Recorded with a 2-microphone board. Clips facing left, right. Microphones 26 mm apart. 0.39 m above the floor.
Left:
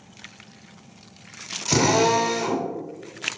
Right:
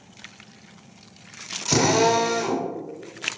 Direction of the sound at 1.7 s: 5° right (ahead or behind).